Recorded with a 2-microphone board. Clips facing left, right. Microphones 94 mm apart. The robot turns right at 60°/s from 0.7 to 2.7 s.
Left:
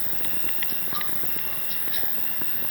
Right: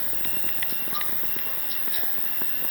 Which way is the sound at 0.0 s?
105° right.